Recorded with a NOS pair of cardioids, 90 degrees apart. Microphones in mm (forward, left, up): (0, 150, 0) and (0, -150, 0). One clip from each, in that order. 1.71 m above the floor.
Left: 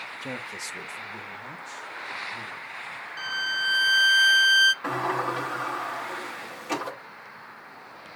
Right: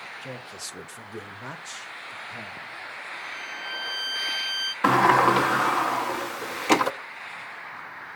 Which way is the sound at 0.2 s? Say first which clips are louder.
Left 3 dB; 15° left.